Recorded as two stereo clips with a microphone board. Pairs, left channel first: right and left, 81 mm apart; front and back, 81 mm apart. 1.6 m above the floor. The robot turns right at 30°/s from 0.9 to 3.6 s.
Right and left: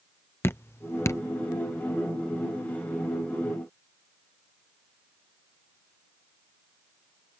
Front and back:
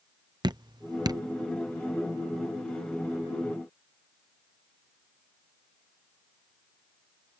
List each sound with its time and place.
0.4 s dripping: 150° right; by 1.2 s 140° right